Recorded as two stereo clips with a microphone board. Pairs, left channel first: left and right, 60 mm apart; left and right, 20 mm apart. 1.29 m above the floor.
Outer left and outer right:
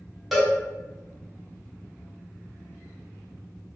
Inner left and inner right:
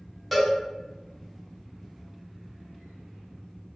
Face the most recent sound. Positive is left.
turn(degrees=-5)  # may be behind; listen again after turning